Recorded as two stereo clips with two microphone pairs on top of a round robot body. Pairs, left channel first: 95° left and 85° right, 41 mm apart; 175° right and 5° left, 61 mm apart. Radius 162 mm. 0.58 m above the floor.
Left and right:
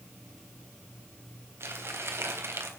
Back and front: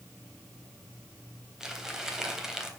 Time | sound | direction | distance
1.6 | crumpling | 75° right | 3.5 m